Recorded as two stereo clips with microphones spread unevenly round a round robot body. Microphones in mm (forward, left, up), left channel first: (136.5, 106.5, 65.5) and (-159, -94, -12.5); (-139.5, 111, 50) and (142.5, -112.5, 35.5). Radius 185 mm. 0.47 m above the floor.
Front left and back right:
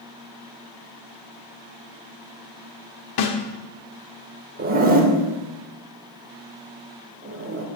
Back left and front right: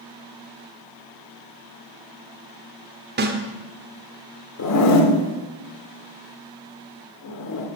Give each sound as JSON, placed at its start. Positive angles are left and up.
{"t": 3.2, "sound": "a snare drum", "azimuth_deg": 10, "distance_m": 1.5}
{"t": 4.6, "sound": "a zipper", "azimuth_deg": 170, "distance_m": 1.9}